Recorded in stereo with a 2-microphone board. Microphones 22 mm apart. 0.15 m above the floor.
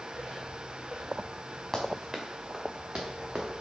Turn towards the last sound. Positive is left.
turn(degrees=-60)  # may be behind; listen again after turning